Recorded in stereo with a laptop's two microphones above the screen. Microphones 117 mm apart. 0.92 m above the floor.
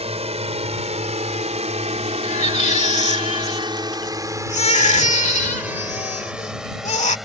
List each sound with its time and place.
0.0 s a drone: 60° right (ahead or behind); by 7.3 s centre (ahead or behind)
2.2 s a baby crying: 85° left